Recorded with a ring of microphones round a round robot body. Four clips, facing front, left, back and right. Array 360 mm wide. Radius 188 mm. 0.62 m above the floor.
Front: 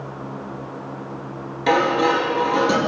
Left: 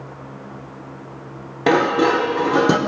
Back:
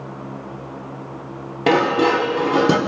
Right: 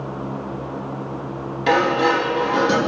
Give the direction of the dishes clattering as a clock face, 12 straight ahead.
8 o'clock.